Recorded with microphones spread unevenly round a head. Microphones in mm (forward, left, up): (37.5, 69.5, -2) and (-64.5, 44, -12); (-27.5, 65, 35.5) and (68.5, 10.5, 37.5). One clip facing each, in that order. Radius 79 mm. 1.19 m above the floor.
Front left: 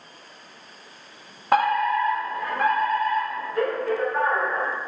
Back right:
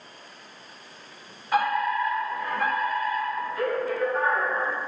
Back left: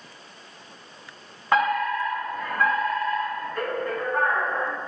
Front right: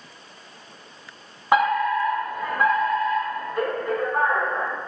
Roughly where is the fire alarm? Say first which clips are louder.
Front left 4 dB, front right 3 dB; ahead left.